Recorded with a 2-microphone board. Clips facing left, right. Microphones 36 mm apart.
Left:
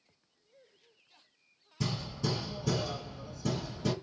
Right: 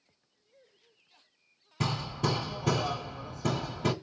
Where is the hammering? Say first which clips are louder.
Right 4 dB; 55° right (ahead or behind), 1.4 m.